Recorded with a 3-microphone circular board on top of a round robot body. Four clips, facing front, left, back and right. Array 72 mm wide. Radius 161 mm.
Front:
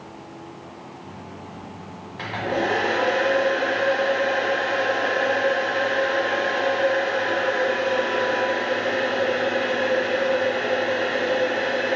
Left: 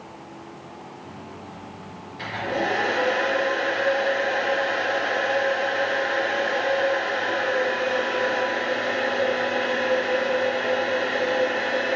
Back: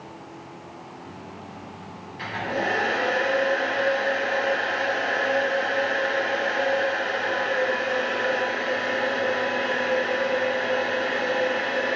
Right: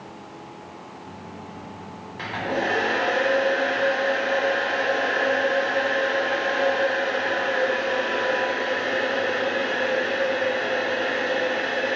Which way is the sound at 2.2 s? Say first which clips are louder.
Even, front 3 dB; 35° right.